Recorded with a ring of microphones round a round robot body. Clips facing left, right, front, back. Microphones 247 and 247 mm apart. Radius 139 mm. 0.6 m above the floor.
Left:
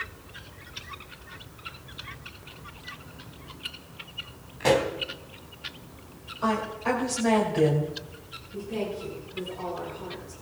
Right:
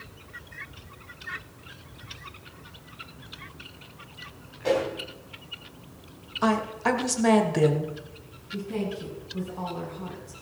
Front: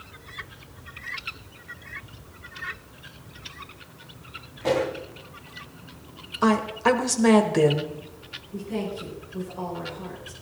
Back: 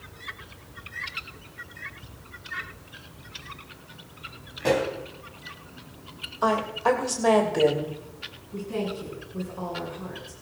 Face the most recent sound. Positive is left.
turn(degrees=-95)